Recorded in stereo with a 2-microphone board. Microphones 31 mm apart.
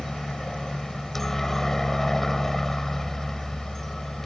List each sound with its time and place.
0.0 s a helicopter: 10° left (ahead or behind)